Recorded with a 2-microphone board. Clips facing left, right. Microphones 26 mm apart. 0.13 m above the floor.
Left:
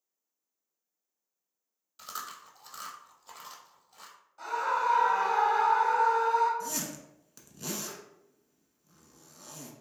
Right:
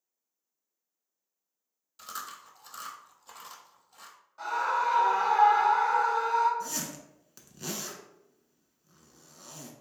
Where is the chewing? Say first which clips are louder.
Even; 5° left (ahead or behind), 0.7 m.